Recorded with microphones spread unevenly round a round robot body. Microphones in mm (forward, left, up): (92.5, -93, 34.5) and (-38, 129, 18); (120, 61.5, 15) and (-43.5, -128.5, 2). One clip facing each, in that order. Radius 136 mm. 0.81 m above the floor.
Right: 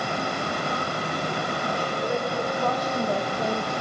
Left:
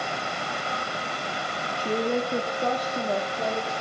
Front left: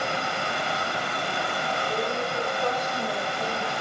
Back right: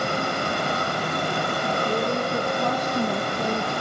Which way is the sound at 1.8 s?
165° left.